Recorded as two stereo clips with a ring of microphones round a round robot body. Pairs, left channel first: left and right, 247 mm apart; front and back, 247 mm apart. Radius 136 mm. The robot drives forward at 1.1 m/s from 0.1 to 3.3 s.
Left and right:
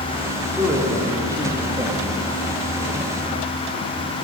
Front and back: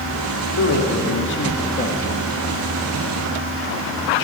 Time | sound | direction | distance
0.6 | a man speaking | 10° right | 2.5 m